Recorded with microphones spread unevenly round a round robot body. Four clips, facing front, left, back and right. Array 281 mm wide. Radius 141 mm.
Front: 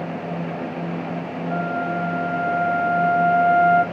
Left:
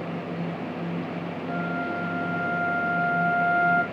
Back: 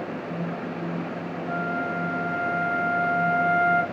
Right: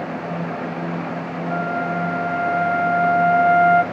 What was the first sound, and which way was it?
A flute, 110° right.